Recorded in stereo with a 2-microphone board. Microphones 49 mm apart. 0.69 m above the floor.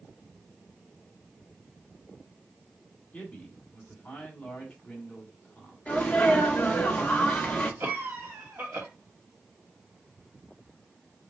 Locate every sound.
3.1 s a man speaking: 20° left (ahead or behind), 2.5 m
5.9 s a sneeze: 25° left (ahead or behind), 1.3 m
7.8 s a cough: 50° right (ahead or behind), 1.9 m